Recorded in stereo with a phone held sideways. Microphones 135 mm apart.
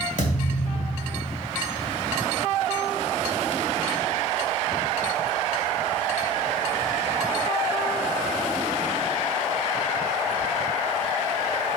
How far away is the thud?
About 2.5 m.